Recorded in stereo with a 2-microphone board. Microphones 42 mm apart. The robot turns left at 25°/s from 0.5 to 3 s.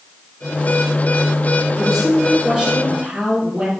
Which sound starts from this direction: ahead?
A woman speaking, at 1.8 s.